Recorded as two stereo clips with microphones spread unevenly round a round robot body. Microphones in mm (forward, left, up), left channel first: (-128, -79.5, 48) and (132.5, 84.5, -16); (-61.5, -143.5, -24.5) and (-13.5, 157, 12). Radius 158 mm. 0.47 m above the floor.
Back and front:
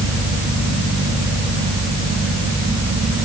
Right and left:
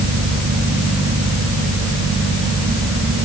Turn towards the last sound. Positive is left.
No sound to turn to.